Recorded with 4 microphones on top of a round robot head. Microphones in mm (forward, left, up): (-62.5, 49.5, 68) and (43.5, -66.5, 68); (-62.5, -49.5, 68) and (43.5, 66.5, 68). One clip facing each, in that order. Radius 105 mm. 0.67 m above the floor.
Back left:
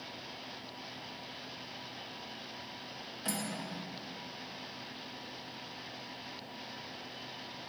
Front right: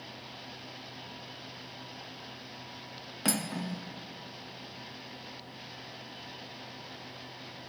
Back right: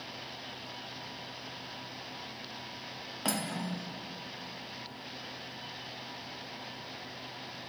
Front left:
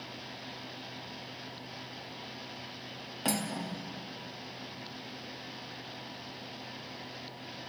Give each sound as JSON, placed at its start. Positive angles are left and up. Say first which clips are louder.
{"t": 3.2, "sound": "cutlery clinking", "louder": "front right 6 dB, front left 1 dB", "azimuth_deg": -35, "distance_m": 0.8}